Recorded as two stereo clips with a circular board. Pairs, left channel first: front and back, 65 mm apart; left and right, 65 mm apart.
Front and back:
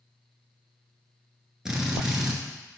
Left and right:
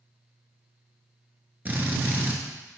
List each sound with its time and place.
1.6 s a drill: 105° right, 1.1 m